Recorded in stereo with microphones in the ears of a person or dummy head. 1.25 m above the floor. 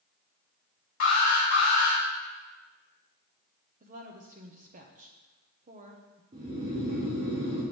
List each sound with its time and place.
1.0 s an alarm: 55° left (ahead or behind), 1.6 m
3.8 s a woman speaking: 30° right (ahead or behind), 0.7 m
6.3 s snoring: 25° right (ahead or behind), 1.5 m